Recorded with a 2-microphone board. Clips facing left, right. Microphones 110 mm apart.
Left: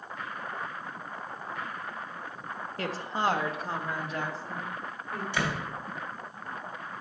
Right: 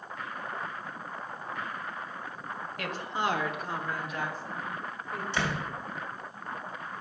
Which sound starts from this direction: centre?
A door slam, at 5.3 s.